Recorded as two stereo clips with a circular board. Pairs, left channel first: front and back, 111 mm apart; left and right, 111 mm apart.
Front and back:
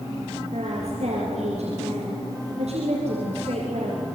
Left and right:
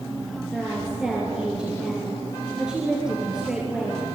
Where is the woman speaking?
175° right, 5 m.